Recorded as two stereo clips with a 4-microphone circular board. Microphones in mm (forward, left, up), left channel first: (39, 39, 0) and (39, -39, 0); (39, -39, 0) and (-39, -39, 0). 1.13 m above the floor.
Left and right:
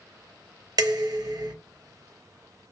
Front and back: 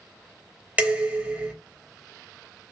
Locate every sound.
0.8 s dishes clattering: 110° right, 0.7 m